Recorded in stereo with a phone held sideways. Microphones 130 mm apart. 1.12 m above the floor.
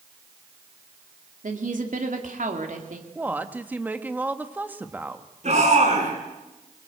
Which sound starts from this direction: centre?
A woman speaking, at 3.1 s.